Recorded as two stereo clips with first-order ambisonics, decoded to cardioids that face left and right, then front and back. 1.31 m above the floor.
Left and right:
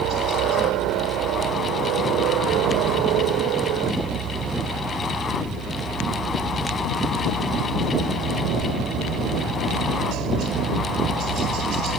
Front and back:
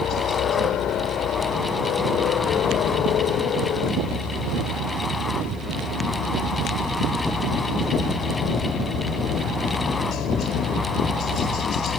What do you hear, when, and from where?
0.0 s a helicopter: 55° right; by 12.0 s 50° right